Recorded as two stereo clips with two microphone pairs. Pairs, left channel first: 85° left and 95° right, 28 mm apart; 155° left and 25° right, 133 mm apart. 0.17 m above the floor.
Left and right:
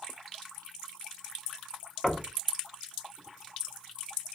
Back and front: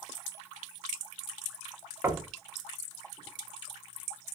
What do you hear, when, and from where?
2.0 s knocking: 15° left, 0.7 m